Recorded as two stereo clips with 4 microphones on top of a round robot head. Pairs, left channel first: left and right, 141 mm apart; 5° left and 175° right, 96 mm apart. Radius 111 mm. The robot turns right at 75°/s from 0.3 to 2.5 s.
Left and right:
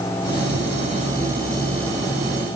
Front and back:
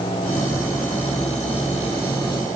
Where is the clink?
I don't hear a clink.